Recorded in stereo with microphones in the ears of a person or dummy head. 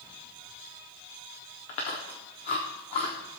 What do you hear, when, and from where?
1.7 s chewing: 25° left (ahead or behind), 1.2 m